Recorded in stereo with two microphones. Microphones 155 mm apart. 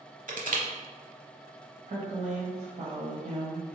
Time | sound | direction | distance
0.3 | crushing | 60° right (ahead or behind) | 0.8 m
1.9 | a woman speaking | 45° right (ahead or behind) | 1.3 m